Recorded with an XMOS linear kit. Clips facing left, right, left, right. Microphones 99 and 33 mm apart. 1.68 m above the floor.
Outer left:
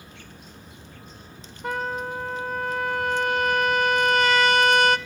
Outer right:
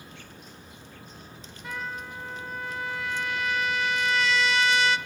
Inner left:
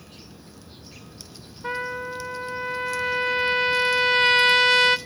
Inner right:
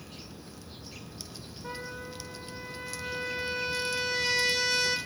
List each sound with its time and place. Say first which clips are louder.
1.6 s a trumpet: outer left 8 dB, inner left 11 dB; 55° left (ahead or behind), 0.5 m